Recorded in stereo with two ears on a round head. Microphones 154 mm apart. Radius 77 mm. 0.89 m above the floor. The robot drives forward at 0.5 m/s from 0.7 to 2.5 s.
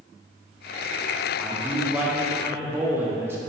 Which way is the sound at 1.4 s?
10° right (ahead or behind).